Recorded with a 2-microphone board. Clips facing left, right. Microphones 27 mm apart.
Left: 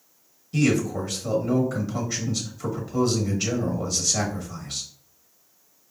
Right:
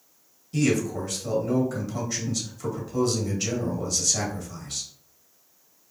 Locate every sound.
0.5 s a man speaking: 10° left (ahead or behind), 1.2 m